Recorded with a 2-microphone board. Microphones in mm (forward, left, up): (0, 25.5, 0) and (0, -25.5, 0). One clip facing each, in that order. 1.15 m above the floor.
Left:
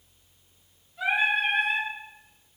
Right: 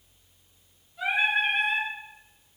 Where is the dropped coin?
I don't hear a dropped coin.